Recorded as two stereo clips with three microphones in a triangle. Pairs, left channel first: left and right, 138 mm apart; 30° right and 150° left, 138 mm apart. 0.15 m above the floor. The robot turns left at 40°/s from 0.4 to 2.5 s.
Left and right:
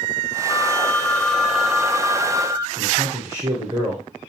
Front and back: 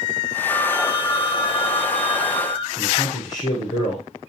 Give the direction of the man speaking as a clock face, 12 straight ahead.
1 o'clock.